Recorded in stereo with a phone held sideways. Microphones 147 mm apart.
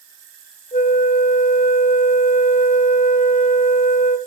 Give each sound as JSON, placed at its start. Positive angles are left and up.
{"t": 0.7, "sound": "a flute", "side_deg": 60, "distance_m": 1.8}